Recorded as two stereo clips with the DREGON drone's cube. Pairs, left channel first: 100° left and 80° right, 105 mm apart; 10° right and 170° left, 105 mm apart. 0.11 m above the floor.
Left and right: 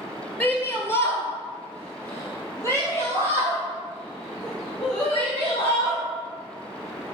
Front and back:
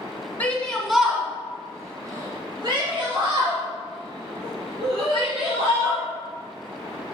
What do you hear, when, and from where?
0.4 s a shout: 50° left, 1.6 m; by 6.0 s 170° left, 4.5 m